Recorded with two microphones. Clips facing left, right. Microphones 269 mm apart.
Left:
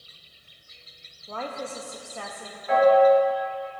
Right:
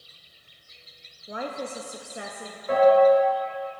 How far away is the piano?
About 3 m.